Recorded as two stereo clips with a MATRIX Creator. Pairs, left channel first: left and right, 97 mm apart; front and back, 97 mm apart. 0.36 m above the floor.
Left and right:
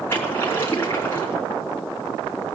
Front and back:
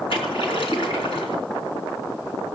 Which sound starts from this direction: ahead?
A splash, at 0.1 s.